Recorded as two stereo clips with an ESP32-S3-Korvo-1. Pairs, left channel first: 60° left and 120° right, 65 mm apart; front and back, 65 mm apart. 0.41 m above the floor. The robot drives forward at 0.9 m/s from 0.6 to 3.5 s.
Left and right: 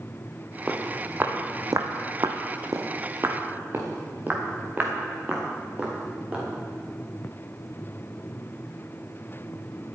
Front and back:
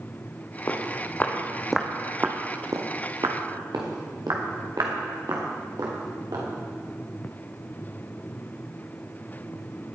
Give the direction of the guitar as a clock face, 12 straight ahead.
No guitar in this recording.